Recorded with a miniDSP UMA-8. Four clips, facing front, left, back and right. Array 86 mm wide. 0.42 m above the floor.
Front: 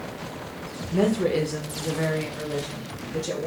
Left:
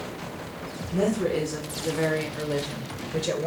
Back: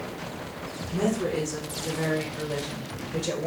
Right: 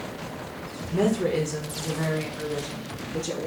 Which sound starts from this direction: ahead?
A woman speaking, at 0.9 s.